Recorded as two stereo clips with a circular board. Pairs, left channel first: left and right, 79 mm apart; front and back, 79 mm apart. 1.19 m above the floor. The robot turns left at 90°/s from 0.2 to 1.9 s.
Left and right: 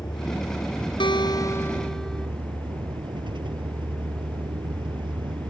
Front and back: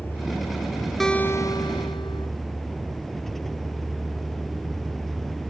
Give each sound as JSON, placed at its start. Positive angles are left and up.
{"t": 0.0, "sound": "a vehicle", "azimuth_deg": 65}
{"t": 1.0, "sound": "a guitar", "azimuth_deg": 85}